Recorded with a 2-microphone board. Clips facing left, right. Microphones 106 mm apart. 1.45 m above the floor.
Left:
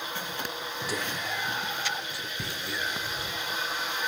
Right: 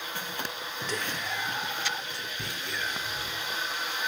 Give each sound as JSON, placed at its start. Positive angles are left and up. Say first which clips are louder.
{"t": 0.9, "sound": "whispering", "louder": "even", "side_deg": 10, "distance_m": 1.0}